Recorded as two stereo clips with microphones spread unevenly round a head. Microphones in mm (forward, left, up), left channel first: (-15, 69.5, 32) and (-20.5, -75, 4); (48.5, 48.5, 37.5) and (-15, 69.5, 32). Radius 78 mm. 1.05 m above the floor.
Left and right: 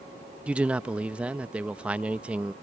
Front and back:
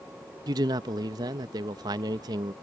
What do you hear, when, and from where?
0.5 s a man speaking: 175° right